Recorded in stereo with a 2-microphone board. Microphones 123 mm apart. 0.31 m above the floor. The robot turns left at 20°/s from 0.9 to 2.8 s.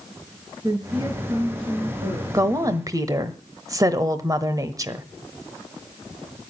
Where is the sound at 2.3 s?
30° right (ahead or behind), 1.2 m.